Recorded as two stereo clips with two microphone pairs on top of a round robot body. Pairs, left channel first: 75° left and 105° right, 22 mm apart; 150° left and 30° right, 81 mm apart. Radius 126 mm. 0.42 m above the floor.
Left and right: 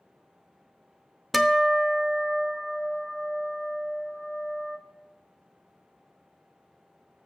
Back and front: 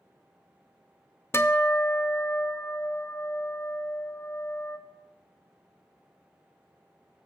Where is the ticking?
No ticking in this recording.